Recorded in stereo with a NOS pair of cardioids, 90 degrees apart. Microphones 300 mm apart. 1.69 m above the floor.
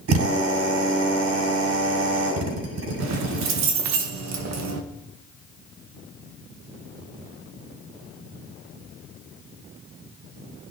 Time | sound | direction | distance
0.1 | a drill | 55° right | 6.5 m
3.0 | keys jangling | 65° right | 1.7 m